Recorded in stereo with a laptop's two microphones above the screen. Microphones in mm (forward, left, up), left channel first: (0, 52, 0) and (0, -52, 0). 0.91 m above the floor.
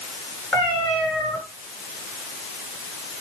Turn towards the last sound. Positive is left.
turn(degrees=5)  # may be behind; listen again after turning